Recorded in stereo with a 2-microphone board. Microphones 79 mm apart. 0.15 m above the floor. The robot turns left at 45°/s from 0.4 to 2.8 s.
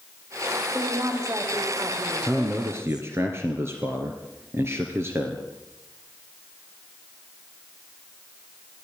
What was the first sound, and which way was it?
A woman speaking, 25° right.